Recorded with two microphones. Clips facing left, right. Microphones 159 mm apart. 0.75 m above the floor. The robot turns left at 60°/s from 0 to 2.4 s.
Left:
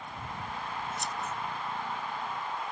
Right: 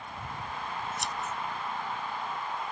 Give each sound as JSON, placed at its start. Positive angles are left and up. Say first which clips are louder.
{"t": 1.0, "sound": "scissors", "louder": "right 1 dB", "side_deg": -85}